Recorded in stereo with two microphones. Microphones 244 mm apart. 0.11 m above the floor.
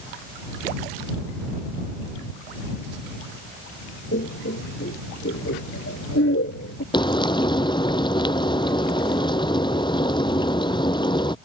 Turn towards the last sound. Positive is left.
turn(degrees=20)  # may be behind; listen again after turning